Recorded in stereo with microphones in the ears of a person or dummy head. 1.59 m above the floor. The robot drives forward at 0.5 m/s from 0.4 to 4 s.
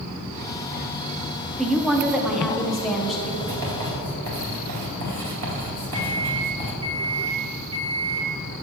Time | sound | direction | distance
1.6 | a woman speaking | centre (ahead or behind) | 0.6 m
3.4 | writing | 55° right (ahead or behind) | 2.5 m
5.9 | a microwave | 75° right (ahead or behind) | 2.0 m